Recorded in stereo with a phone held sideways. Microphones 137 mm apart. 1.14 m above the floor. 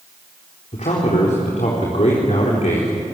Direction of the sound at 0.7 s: 60° left (ahead or behind).